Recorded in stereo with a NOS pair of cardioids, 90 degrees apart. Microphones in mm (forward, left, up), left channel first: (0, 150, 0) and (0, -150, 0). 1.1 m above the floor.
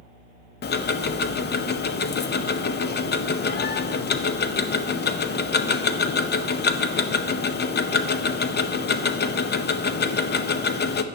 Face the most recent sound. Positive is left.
turn(degrees=35)